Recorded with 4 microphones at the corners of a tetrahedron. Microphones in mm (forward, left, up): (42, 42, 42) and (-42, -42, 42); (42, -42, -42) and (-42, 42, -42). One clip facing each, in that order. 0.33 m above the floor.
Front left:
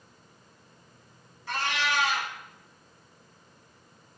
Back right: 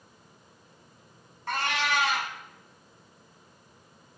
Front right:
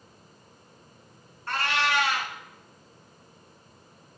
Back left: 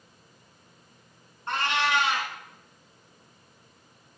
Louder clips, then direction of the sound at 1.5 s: Back right 1 dB, back left 1 dB; 160° right.